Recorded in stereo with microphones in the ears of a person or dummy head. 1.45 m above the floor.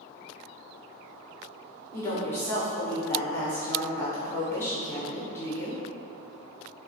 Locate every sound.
1.9 s a woman speaking: 15° left (ahead or behind), 0.8 m